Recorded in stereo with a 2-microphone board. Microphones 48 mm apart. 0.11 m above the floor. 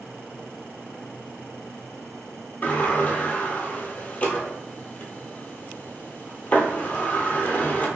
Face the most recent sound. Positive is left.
turn(degrees=35)  # may be behind; listen again after turning